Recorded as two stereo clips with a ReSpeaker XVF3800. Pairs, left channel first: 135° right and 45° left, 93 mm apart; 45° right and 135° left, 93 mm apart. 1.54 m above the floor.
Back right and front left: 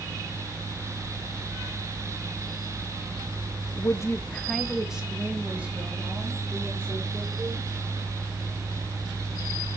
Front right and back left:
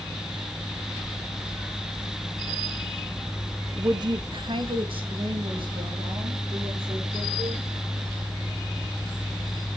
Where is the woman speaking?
170° right, 0.8 m; by 7.7 s 115° left, 6 m.